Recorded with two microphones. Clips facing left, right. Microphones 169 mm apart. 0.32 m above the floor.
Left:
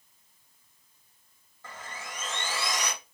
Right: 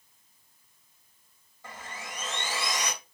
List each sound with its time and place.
1.6 s sawing: 15° right (ahead or behind), 1.9 m